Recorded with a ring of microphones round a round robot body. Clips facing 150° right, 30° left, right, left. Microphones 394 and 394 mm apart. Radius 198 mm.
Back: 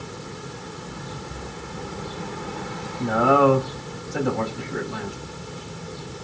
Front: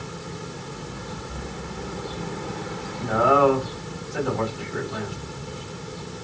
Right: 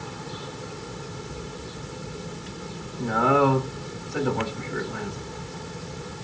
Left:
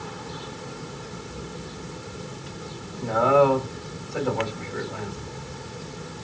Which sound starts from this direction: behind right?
A man speaking, at 3.0 s.